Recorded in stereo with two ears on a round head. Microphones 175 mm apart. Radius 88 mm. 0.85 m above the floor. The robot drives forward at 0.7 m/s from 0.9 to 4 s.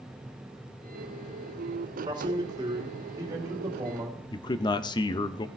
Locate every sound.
2.0 s a man speaking: 25° right (ahead or behind), 2 m; by 4.2 s 15° right (ahead or behind), 3.5 m
4.3 s a man speaking: 25° left (ahead or behind), 0.5 m